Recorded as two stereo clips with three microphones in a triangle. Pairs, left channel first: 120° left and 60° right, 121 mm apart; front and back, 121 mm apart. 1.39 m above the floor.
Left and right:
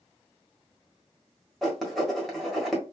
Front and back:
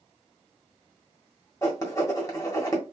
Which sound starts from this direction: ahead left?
Writing, at 1.6 s.